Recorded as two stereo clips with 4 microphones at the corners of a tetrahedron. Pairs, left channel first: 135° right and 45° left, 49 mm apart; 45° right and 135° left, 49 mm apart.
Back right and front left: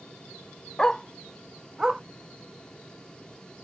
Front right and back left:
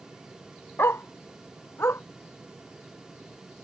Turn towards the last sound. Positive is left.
turn(degrees=-30)